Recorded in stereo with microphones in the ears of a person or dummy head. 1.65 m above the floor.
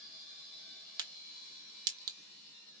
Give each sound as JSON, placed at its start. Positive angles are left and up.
{"t": 1.0, "sound": "a crack", "side_deg": -25, "distance_m": 1.1}